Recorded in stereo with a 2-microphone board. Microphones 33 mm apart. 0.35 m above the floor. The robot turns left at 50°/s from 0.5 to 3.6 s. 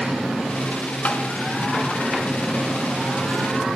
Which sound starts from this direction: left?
Tapping, at 1.1 s.